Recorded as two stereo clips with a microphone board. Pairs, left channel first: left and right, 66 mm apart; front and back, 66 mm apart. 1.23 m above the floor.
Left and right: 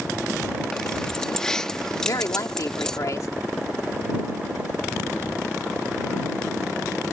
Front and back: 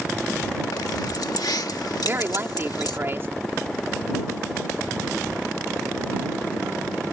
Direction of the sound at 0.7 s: 10° left.